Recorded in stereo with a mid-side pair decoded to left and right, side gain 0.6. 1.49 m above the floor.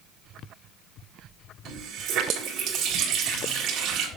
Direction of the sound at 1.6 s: 60° right.